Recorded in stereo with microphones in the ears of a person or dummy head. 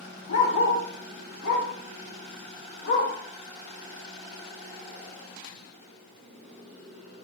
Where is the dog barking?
60° left (ahead or behind), 2 m; by 3.1 s 50° left (ahead or behind), 2.5 m.